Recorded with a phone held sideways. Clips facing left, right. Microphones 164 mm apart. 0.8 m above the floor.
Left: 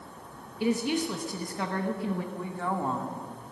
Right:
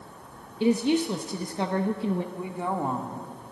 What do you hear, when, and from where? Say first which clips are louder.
0.6 s a woman speaking: right 5 dB; 25° right (ahead or behind), 0.7 m
2.3 s a woman speaking: right 2 dB; 15° right (ahead or behind), 1.5 m